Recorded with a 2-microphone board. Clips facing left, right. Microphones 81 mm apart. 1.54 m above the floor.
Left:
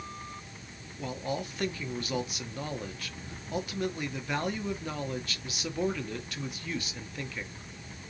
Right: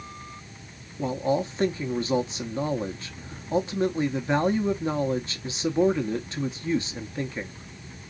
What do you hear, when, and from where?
1.0 s a man speaking: 25° right (ahead or behind), 0.9 m